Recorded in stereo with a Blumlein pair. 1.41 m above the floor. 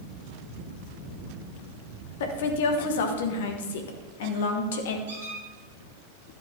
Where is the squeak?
60° right, 4 m.